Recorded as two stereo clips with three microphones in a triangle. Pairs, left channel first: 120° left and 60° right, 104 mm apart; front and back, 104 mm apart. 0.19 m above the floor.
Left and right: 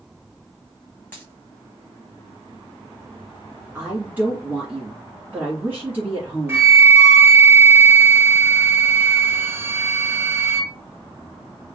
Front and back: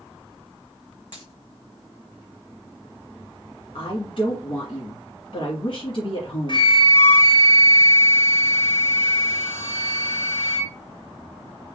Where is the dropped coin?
45° left, 1.9 m.